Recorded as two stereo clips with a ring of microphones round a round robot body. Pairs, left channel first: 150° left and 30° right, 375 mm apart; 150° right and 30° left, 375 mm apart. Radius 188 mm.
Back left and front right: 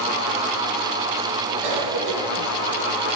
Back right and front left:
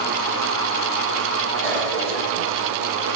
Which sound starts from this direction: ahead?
A cough, at 1.6 s.